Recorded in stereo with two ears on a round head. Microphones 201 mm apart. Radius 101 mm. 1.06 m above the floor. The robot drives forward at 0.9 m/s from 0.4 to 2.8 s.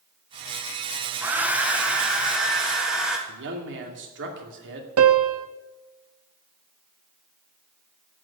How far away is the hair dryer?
About 0.7 m.